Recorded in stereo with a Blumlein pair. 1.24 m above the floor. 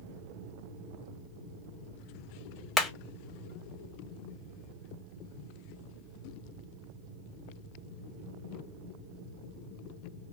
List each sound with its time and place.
2.8 s hammering: 5° left, 0.9 m